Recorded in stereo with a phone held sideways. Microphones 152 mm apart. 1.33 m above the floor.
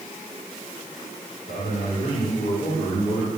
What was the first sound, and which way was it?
A man speaking, 70° left (ahead or behind).